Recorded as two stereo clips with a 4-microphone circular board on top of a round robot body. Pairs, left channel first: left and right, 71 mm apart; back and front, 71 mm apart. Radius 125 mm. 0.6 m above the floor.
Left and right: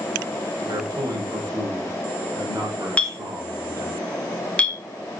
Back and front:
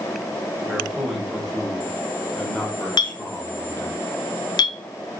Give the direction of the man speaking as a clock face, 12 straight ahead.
3 o'clock.